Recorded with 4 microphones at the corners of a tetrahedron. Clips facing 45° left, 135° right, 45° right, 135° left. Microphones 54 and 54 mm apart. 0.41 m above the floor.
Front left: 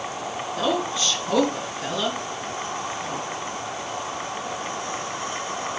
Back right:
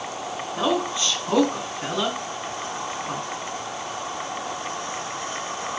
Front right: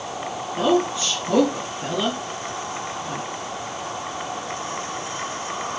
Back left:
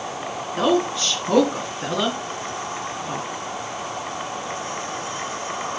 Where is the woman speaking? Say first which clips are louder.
Back right 1 dB, even; 165° left, 3.5 m.